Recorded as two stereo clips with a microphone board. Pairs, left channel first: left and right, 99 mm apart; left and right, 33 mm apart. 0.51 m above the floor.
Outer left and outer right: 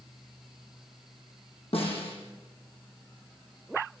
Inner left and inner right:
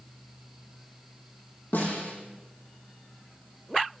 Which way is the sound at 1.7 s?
70° left (ahead or behind).